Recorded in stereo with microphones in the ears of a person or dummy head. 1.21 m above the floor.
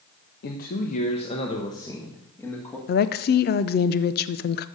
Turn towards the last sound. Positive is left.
turn(degrees=50)  # may be behind; listen again after turning